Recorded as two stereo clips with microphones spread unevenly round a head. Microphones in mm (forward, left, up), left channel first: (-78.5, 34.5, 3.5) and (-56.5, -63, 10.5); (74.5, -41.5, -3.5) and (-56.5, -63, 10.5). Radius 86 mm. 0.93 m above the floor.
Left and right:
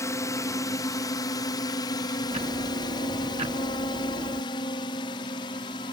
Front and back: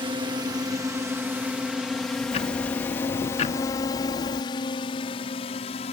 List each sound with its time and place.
0.0 s a drone: 140° left; by 5.9 s 55° left
2.3 s ticking: 25° right